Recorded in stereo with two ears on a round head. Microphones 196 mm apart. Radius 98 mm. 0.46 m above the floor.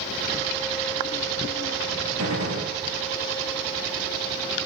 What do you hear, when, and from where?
2.2 s a gunshot: 80° right, 3 m